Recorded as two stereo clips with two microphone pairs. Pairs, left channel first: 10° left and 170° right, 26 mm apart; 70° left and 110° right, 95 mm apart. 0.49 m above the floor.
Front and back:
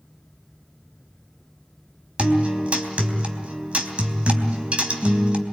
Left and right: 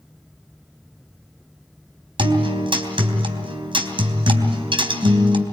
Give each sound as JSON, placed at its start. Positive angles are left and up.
{"t": 2.2, "sound": "a guitar", "azimuth_deg": -130, "distance_m": 3.5}